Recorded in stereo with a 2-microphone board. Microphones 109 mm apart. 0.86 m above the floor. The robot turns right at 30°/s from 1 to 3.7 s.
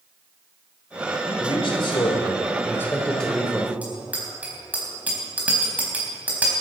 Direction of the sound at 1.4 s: 115° left.